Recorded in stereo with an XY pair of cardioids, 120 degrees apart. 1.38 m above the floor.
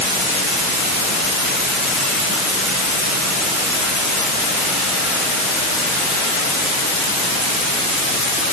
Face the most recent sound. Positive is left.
No sound to turn to.